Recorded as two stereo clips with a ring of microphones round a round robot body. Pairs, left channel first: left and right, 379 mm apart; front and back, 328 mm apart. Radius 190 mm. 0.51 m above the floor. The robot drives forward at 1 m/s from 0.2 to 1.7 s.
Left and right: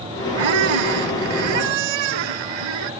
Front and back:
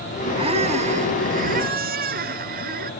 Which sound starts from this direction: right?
A squeak, at 0.4 s.